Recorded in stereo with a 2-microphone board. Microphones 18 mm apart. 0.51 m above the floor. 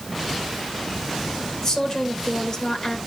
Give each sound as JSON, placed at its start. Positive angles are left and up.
{"t": 1.6, "sound": "a woman speaking", "side_deg": 30, "distance_m": 2.5}